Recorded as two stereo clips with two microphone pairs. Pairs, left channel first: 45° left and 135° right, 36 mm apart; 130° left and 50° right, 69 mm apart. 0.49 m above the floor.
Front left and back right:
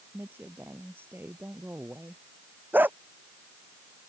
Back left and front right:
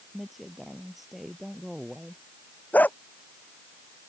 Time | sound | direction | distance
0.1 | a woman speaking | 140° right | ?
2.7 | a dog barking | 165° right | ?